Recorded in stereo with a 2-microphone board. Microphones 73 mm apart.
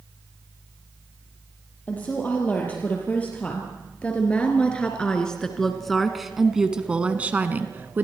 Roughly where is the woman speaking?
Left.